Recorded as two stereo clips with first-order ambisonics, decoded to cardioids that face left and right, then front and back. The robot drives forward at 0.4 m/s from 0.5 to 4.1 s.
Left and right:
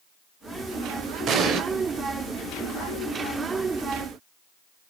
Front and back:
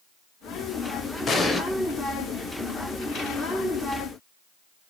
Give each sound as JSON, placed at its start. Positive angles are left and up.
{"t": 1.3, "sound": "an explosion", "azimuth_deg": -55, "distance_m": 0.5}